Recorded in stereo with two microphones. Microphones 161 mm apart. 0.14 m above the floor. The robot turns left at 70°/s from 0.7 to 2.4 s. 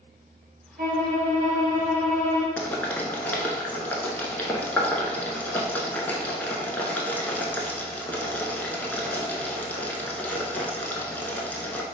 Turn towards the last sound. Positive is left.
turn(degrees=10)  # may be behind; listen again after turning